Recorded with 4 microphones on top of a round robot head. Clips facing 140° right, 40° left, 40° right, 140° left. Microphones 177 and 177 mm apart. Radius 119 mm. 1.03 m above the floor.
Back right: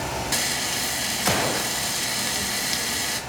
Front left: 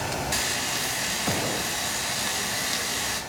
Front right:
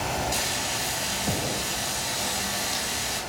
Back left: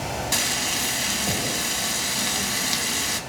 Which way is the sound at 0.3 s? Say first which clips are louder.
Back right 2 dB, back left 1 dB; 155° left.